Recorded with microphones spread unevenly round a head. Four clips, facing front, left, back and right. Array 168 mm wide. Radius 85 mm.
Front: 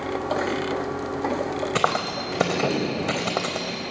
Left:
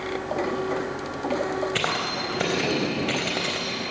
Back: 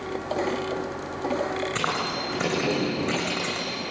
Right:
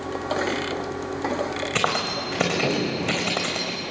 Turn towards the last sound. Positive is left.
turn(degrees=-20)